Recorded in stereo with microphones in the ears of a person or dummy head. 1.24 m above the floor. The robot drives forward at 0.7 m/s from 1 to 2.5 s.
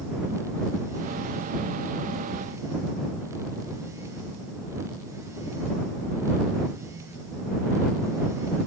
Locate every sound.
Only background noise.